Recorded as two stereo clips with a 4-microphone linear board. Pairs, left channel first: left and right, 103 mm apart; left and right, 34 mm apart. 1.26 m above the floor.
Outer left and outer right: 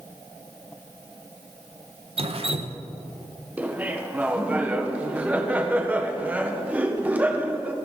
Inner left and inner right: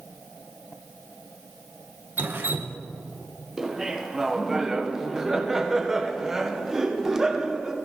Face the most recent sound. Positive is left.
turn(degrees=-15)  # may be behind; listen again after turning